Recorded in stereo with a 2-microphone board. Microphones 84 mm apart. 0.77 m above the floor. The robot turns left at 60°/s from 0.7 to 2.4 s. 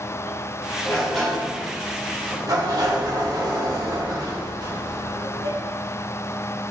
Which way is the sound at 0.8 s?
25° left.